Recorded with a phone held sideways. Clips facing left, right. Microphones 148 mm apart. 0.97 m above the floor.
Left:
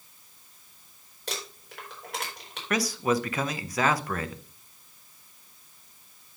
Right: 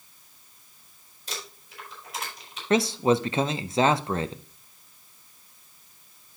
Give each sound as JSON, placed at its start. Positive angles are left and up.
{"t": 1.3, "sound": "crumpling", "side_deg": 70, "distance_m": 4.0}
{"t": 2.7, "sound": "a man speaking", "side_deg": -25, "distance_m": 0.6}